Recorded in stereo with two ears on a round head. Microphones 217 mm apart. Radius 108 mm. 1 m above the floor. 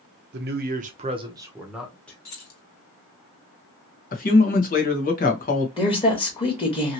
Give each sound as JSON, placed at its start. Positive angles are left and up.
{"t": 0.3, "sound": "a man speaking", "side_deg": -45, "distance_m": 0.7}
{"t": 2.2, "sound": "keys jangling", "side_deg": 80, "distance_m": 1.8}
{"t": 4.1, "sound": "a man speaking", "side_deg": 35, "distance_m": 1.0}
{"t": 5.8, "sound": "a woman speaking", "side_deg": 20, "distance_m": 1.0}